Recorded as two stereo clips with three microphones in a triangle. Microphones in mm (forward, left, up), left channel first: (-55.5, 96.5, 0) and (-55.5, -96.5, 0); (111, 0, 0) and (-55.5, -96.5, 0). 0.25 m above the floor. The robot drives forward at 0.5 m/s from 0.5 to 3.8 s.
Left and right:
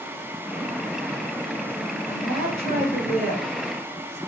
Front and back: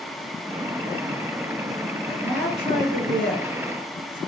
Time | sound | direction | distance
2.0 | a woman speaking | 170° left | 1.8 m